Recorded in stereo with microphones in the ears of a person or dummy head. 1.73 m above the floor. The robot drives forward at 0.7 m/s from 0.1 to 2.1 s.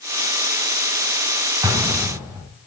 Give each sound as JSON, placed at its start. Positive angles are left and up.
{"t": 1.6, "sound": "an explosion", "side_deg": -10, "distance_m": 0.7}